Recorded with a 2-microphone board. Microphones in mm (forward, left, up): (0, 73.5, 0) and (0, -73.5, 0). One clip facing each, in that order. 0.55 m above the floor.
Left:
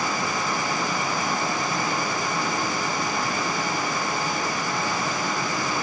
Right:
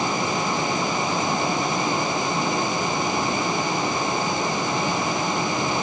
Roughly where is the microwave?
No microwave in this recording.